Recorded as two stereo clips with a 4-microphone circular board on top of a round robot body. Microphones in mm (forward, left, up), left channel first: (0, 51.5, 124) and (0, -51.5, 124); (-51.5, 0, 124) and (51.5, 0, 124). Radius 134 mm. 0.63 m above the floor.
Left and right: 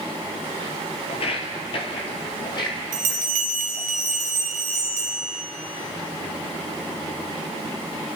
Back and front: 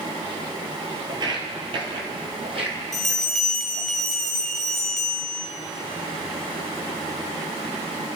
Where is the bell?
95° right, 0.6 m.